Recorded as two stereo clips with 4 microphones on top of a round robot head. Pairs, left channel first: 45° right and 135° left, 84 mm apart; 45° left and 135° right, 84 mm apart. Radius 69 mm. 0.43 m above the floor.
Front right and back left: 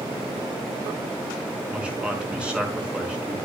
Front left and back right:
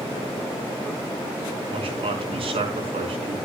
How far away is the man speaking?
About 5 m.